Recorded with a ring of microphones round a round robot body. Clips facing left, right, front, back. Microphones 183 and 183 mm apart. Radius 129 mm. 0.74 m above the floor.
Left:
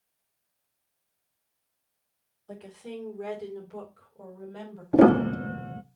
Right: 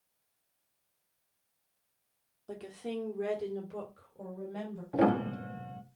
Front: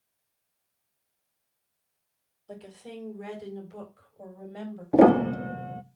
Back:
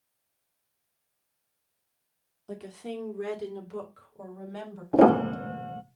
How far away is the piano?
About 0.5 m.